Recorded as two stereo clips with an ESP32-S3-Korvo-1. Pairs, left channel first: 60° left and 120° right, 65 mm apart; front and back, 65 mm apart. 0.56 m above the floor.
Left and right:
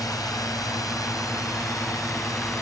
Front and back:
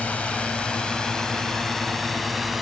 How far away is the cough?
I don't hear a cough.